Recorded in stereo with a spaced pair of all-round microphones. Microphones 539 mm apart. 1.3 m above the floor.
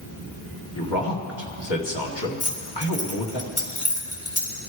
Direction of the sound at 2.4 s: 35° left (ahead or behind).